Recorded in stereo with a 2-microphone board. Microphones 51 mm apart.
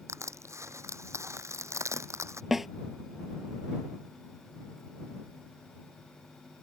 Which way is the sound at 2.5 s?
5° right (ahead or behind).